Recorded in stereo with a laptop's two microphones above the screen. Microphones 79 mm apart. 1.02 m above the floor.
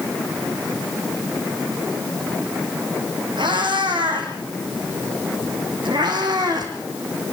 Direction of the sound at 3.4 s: 80° right.